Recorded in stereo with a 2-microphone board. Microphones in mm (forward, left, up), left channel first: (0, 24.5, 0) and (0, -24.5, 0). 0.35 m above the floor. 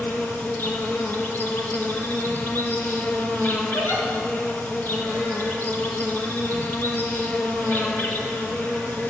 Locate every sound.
0.0 s an insect: 45° left (ahead or behind), 2 m
3.7 s a giggle: 75° left (ahead or behind), 6.5 m